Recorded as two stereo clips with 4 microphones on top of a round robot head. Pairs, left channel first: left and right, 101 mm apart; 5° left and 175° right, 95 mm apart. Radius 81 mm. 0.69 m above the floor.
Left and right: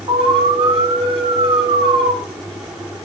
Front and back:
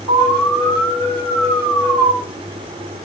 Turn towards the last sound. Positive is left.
turn(degrees=-55)